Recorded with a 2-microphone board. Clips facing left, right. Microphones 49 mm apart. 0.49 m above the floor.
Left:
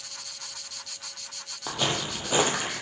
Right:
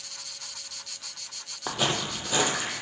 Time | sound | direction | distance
1.7 | footsteps | 15° right (ahead or behind) | 0.6 m